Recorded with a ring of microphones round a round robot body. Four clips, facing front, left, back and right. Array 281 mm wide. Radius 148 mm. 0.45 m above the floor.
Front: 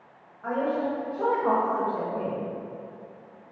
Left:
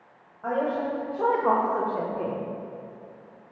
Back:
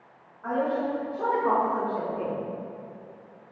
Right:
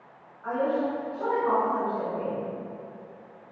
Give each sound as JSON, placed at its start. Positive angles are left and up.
{"t": 0.4, "sound": "a woman speaking", "azimuth_deg": 75, "distance_m": 3.0}